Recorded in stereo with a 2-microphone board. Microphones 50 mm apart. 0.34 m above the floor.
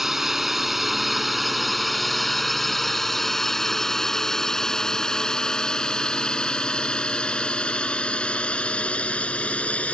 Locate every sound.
0.0 s a drone: 5° right (ahead or behind); by 9.9 s 25° left (ahead or behind)